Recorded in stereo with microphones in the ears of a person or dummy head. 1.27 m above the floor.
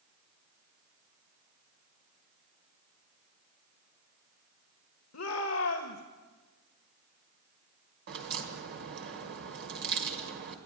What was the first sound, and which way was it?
A shout, 80° left.